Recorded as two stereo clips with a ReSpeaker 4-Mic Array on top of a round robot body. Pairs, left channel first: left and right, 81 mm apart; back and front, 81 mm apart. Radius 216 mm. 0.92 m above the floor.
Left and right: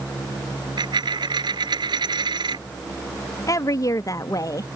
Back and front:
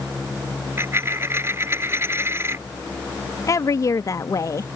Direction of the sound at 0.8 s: 60° right.